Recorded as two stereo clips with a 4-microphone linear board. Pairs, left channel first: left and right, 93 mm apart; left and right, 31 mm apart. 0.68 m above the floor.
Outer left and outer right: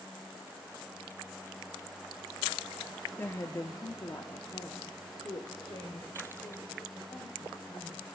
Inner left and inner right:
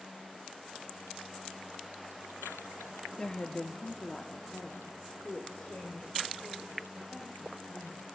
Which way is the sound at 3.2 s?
20° left (ahead or behind).